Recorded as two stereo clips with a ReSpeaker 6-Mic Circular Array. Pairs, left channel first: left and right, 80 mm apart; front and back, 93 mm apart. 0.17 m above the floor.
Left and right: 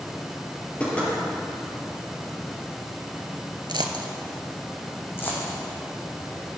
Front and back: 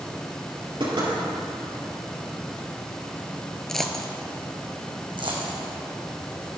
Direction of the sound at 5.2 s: 150° left.